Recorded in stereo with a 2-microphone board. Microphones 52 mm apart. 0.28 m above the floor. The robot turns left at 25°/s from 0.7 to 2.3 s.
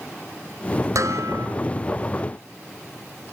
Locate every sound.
0.9 s dishes clattering: 80° right, 3.5 m; by 1.5 s 75° right (ahead or behind), 3.5 m